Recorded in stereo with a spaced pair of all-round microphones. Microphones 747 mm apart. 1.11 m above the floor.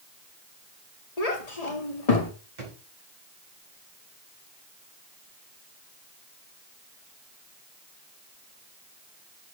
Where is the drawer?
75° right (ahead or behind), 4 m.